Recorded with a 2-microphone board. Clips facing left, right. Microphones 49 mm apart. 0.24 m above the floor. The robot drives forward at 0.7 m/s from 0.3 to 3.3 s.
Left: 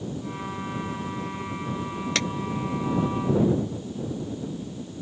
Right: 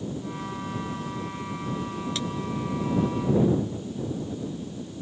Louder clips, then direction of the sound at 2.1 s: Left 7 dB; 70° left (ahead or behind).